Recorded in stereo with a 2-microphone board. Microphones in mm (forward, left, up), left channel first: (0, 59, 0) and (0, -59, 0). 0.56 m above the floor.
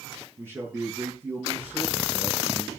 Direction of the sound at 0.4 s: 20° right (ahead or behind).